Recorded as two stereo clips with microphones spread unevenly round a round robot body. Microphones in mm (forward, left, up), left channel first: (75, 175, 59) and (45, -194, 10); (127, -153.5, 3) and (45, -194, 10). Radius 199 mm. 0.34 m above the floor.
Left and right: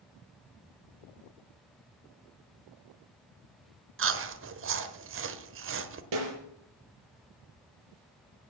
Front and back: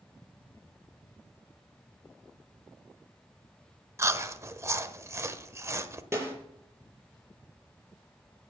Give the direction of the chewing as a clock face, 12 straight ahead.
4 o'clock.